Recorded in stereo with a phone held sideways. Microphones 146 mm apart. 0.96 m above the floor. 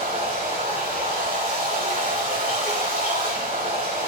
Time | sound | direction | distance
0.0 | running water | 80° right | 5 m